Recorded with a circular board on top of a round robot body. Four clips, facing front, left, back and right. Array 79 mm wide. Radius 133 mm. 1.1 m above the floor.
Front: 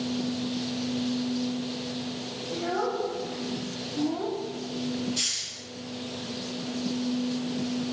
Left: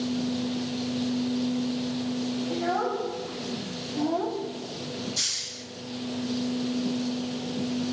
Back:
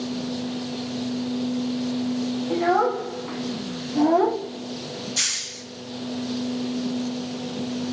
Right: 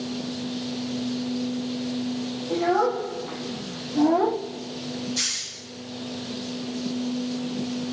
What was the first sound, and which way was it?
A child speaking, 165° right.